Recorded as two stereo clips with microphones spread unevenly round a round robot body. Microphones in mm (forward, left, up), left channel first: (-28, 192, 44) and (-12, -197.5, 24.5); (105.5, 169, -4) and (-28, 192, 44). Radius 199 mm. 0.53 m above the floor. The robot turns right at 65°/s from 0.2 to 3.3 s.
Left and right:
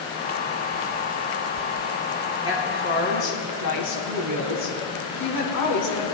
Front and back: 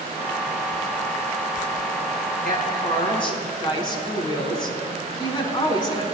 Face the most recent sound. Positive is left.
turn(degrees=50)